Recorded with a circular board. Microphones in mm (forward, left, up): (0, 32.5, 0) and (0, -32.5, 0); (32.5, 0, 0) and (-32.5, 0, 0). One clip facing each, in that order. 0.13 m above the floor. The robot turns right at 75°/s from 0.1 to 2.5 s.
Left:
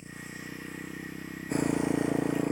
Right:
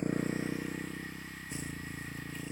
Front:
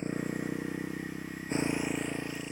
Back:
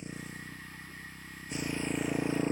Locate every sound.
0.0 s a motorcycle: 50° right; by 2.5 s 130° left